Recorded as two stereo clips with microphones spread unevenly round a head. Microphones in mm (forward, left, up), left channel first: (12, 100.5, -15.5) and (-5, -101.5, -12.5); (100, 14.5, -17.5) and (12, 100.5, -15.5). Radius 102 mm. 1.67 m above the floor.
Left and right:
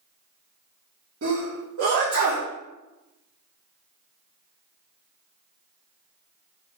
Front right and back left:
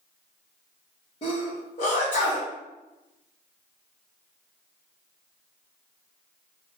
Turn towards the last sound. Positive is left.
turn(degrees=-95)